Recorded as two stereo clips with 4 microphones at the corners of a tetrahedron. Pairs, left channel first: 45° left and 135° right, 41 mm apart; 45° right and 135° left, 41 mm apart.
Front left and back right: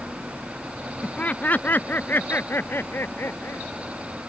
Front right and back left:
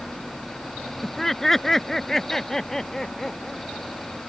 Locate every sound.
1.0 s laughter: 30° left; by 3.7 s 35° left